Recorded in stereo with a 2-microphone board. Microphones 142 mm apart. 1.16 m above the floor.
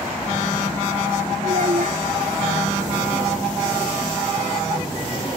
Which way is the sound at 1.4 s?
65° right (ahead or behind).